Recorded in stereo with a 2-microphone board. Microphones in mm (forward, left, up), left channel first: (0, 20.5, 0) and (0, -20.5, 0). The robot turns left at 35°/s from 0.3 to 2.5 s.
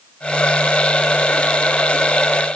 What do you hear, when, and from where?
Only background noise.